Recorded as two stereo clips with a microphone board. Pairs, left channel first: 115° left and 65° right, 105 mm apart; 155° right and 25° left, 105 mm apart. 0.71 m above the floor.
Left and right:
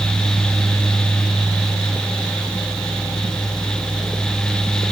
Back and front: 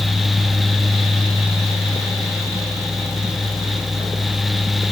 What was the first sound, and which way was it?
Only background noise.